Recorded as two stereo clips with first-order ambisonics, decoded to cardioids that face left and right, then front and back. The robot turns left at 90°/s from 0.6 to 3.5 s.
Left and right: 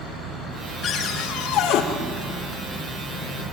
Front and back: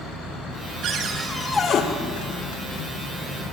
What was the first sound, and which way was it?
A cupboard door, 140° left.